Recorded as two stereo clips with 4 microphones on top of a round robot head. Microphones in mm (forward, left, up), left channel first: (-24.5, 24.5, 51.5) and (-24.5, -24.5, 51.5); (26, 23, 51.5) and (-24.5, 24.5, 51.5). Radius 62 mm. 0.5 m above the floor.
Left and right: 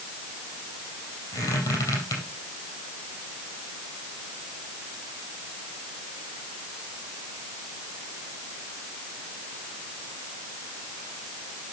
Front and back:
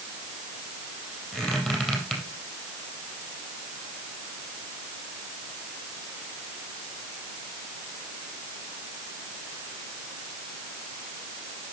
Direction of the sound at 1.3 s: 75° left.